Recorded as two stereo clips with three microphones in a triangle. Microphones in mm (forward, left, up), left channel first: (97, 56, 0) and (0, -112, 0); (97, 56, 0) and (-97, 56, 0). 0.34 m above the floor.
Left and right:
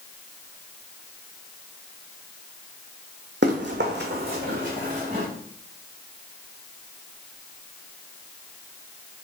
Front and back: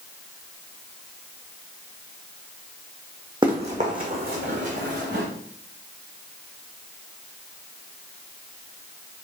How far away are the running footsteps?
About 1.0 m.